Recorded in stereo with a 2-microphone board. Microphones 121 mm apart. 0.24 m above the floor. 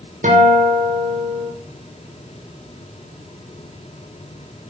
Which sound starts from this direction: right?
A guitar, at 0.2 s.